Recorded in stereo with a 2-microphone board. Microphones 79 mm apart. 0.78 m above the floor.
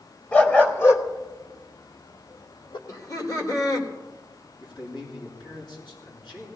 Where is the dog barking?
20° left (ahead or behind), 1.3 m; by 2.8 s 80° left, 1.2 m.